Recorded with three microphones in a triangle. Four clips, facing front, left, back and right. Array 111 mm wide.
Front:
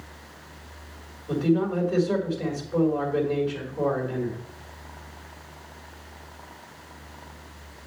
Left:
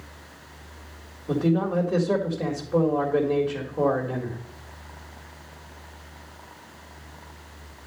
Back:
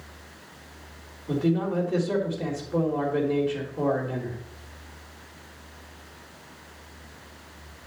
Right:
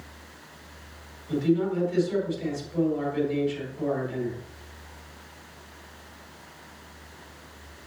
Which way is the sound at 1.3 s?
95° left.